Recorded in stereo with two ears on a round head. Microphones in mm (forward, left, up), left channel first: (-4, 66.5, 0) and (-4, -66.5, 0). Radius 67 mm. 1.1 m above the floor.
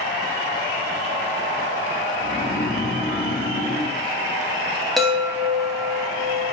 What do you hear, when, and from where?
2.2 s snoring: 65° left (ahead or behind), 0.7 m
5.0 s a chime: centre (ahead or behind), 0.6 m